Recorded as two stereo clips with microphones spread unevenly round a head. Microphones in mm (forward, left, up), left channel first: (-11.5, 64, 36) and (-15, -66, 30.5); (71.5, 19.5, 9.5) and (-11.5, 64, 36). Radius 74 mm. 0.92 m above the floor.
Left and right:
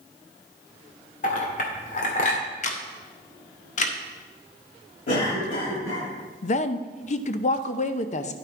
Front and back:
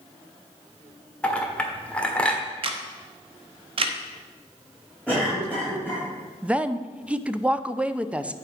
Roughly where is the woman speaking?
Ahead left.